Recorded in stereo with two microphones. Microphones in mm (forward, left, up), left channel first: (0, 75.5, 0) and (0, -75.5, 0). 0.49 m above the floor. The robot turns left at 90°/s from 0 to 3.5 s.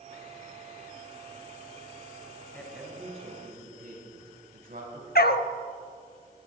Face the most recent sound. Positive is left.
turn(degrees=75)  # may be behind; listen again after turning